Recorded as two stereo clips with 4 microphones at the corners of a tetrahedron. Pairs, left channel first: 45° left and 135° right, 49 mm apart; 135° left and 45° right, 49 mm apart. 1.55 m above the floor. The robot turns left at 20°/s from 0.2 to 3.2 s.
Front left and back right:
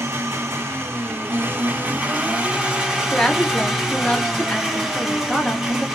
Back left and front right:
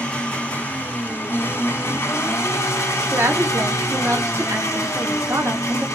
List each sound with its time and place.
0.0 s an engine running: 160° right, 1.1 m; by 6.0 s 140° left, 1.1 m
3.1 s a woman speaking: 30° right, 1.1 m